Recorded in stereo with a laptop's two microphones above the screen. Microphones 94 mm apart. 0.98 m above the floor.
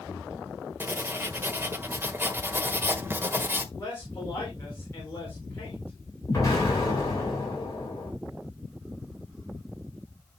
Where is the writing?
25° right (ahead or behind), 1.3 m.